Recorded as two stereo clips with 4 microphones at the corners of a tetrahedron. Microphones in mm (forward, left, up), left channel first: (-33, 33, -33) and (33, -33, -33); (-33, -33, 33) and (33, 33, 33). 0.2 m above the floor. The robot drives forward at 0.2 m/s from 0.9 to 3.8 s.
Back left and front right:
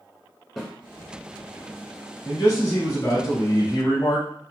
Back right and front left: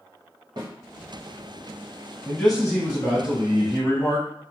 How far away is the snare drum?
About 1.1 m.